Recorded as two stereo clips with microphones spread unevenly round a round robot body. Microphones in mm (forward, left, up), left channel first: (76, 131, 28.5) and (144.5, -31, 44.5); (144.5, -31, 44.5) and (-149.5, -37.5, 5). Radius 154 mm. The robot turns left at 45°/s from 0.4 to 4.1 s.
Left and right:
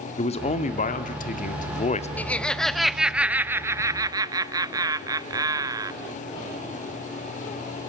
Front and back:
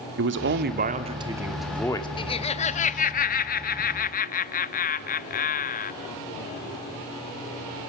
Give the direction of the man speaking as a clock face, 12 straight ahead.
7 o'clock.